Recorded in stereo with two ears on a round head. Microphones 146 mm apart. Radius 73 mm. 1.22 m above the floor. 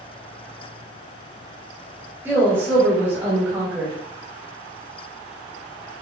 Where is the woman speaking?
15° right (ahead or behind), 1.9 m.